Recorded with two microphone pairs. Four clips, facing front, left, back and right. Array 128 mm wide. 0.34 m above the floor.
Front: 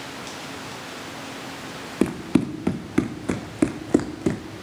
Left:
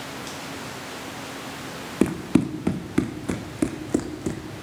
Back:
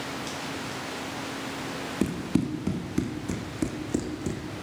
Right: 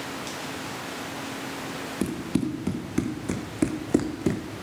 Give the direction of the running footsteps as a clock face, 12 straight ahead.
11 o'clock.